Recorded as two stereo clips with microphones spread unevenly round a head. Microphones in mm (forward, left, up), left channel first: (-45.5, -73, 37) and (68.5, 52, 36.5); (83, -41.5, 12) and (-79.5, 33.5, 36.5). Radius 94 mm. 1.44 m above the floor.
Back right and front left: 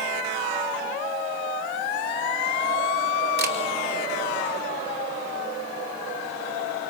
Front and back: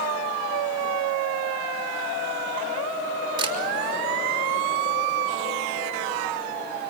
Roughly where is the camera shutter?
Left.